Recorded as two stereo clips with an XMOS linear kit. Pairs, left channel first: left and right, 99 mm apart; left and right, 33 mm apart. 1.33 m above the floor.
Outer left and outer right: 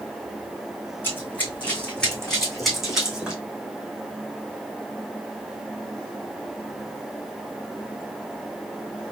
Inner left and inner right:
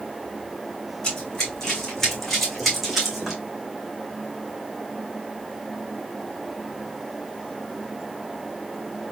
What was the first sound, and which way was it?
Running footsteps, 20° left (ahead or behind).